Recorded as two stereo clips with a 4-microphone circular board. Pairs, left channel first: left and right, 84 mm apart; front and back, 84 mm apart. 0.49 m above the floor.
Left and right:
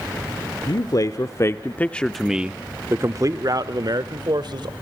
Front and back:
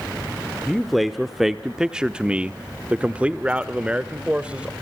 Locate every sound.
0.7 s a man speaking: 90° left, 1.1 m; by 4.7 s 105° right, 1.6 m